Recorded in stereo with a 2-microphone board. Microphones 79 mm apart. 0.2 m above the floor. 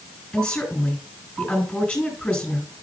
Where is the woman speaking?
20° left (ahead or behind), 2.5 m.